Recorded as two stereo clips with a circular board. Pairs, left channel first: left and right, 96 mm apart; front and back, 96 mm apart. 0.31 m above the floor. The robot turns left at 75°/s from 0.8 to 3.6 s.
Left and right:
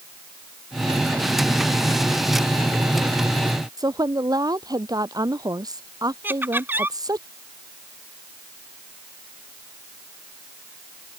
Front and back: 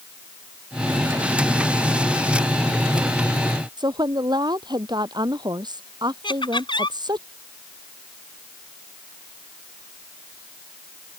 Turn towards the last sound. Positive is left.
turn(degrees=-25)